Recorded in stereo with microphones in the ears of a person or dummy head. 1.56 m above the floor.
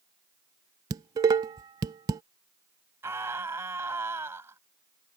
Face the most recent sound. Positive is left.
turn(degrees=-10)  # may be behind; listen again after turning